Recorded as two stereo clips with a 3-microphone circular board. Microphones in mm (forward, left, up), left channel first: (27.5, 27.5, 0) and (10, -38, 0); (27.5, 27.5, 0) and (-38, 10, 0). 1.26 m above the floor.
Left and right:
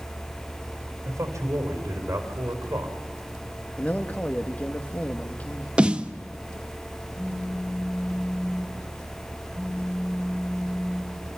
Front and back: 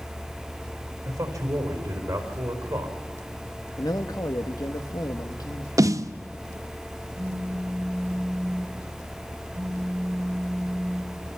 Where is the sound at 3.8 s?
10° left, 1.5 m.